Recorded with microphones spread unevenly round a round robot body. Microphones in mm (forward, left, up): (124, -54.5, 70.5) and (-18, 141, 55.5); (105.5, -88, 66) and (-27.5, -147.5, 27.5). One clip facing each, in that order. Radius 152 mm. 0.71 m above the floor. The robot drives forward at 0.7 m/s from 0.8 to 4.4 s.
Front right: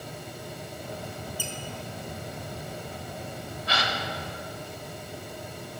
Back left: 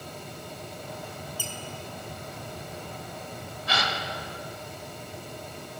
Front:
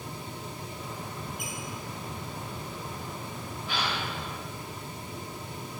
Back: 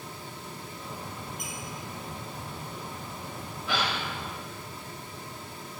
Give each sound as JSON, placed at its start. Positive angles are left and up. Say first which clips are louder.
{"t": 1.4, "sound": "a squeak", "louder": "front right 2 dB, front 1 dB", "azimuth_deg": 140, "distance_m": 1.1}
{"t": 3.7, "sound": "a gasp", "louder": "even, back 2 dB", "azimuth_deg": 145, "distance_m": 0.9}